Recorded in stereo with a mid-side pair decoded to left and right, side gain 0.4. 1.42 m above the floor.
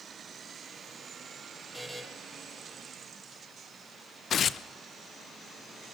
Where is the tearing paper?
60° left, 0.9 m.